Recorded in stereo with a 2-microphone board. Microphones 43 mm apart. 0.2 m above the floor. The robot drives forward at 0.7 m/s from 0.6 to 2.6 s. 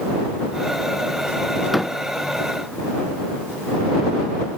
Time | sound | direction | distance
1.7 | a door slam | centre (ahead or behind) | ?